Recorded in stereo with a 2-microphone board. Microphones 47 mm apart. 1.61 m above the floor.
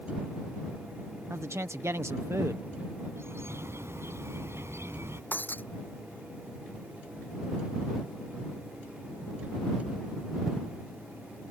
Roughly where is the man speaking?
Right.